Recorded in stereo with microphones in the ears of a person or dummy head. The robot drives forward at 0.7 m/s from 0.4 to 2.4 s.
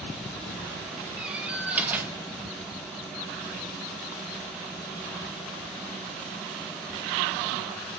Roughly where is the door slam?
Centre.